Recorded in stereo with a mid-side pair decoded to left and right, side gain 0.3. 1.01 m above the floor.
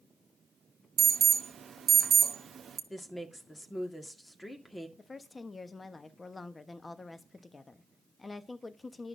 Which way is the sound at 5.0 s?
45° left.